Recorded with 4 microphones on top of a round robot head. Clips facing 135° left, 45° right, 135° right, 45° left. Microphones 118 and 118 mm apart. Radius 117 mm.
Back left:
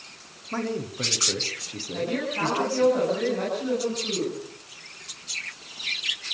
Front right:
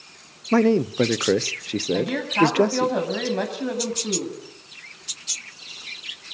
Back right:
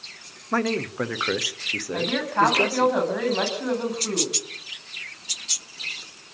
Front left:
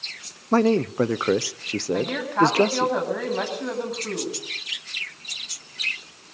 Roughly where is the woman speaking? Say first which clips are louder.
Front right 4 dB, even; ahead right.